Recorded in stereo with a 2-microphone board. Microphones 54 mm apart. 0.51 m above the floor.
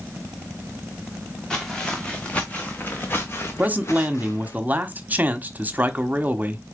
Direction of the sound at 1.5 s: 10° left (ahead or behind).